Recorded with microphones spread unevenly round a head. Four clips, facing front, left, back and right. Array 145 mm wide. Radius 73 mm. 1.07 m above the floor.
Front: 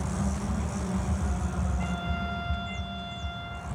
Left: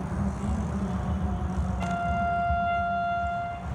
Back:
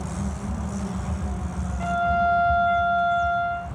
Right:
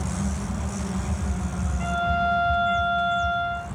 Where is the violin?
165° right, 2 m.